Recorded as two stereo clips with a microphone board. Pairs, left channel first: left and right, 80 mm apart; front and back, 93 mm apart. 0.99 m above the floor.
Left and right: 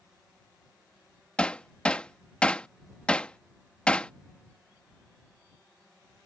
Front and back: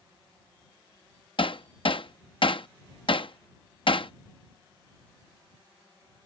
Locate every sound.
1.4 s hammering: 15° left